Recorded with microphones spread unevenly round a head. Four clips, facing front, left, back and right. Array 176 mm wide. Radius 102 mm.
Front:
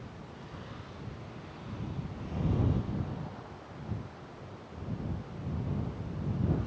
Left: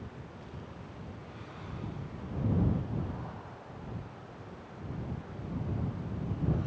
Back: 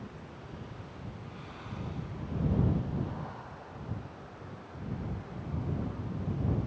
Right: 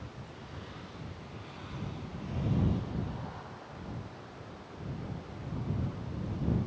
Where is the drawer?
I don't hear a drawer.